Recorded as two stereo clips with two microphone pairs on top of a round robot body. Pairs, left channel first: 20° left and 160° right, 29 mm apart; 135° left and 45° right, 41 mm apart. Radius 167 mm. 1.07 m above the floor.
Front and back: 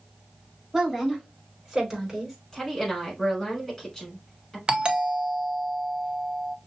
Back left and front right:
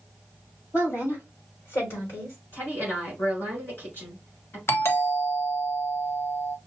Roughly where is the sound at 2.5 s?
Left.